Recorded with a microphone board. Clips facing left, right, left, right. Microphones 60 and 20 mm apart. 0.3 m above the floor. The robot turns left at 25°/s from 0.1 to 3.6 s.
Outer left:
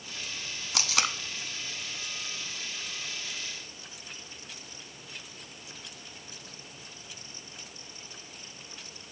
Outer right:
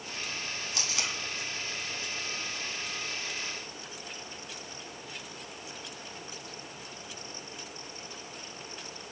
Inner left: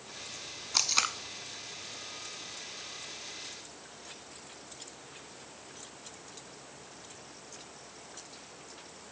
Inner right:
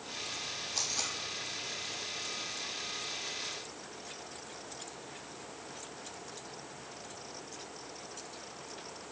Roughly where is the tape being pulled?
Left.